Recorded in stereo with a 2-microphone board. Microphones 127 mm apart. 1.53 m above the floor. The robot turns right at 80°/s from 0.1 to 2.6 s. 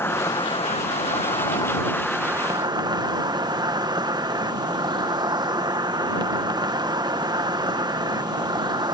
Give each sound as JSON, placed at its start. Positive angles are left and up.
{"t": 0.0, "sound": "an insect", "azimuth_deg": 20}